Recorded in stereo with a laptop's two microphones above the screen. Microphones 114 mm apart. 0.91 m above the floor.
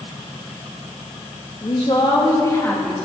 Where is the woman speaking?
55° left (ahead or behind), 1.6 m; by 3.1 s 10° left (ahead or behind), 1.8 m.